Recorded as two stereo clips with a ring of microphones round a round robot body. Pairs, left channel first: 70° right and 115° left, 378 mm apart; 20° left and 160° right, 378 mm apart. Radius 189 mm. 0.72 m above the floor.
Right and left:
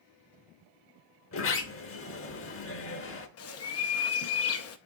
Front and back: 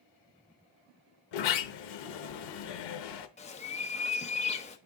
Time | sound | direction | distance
1.3 | a sliding door | 10° right | 1.0 m
3.4 | a bird | 40° right | 0.7 m